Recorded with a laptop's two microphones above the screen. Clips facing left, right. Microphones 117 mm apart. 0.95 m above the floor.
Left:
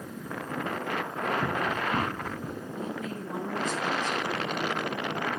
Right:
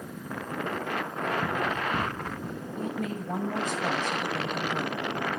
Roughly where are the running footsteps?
Centre.